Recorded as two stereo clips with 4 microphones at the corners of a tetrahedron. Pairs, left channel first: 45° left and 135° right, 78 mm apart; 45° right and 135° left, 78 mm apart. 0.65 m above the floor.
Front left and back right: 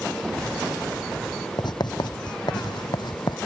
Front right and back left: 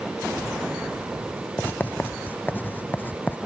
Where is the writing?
20° left.